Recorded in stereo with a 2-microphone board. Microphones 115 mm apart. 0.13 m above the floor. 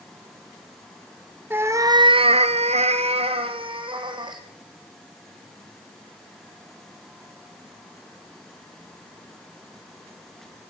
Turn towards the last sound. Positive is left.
turn(degrees=-40)  # may be behind; listen again after turning